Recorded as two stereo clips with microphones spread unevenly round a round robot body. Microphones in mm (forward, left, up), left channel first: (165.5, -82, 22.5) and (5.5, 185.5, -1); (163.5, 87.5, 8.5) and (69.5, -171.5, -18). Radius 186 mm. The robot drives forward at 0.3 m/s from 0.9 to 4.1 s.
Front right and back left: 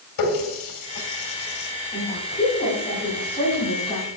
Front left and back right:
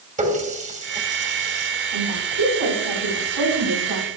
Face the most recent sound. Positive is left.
turn(degrees=-135)